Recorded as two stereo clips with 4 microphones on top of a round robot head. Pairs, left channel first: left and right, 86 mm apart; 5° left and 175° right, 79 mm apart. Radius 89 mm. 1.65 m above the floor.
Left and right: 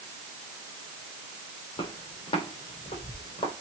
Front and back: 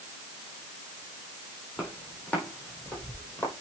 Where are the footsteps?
80° left, 6 m; by 3.5 s 75° left, 4.5 m.